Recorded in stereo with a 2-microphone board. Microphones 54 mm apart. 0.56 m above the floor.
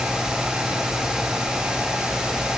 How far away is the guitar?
No guitar in this recording.